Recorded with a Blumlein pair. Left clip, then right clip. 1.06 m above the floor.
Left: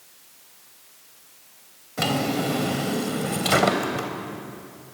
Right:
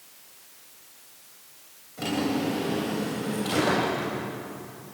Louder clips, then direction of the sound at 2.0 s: Left 4 dB; 35° left.